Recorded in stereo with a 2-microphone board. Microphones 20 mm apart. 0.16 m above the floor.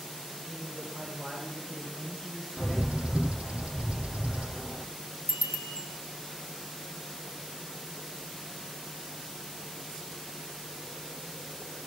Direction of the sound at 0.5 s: 40° right (ahead or behind).